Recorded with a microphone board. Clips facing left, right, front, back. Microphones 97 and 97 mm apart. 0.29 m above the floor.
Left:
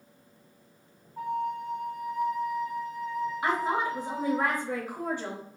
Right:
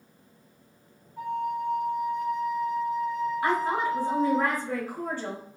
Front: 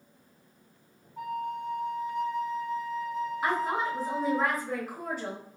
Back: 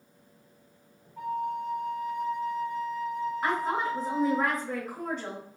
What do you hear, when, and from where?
1.2 s a flute: 75° left, 1.6 m
3.4 s a woman speaking: 80° left, 1.1 m